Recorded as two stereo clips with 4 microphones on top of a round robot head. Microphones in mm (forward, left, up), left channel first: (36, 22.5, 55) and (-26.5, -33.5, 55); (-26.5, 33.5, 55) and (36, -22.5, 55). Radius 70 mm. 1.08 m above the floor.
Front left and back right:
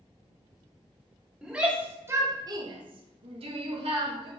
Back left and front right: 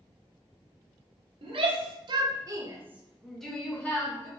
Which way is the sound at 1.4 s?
55° right.